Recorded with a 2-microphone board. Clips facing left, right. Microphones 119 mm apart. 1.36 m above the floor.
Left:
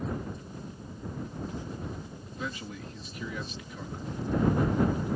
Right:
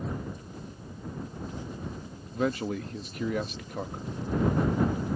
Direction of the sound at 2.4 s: 60° right (ahead or behind).